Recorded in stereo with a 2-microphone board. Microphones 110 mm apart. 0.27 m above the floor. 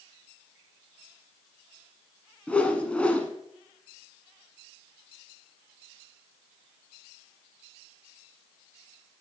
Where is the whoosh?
10° left (ahead or behind), 0.9 m.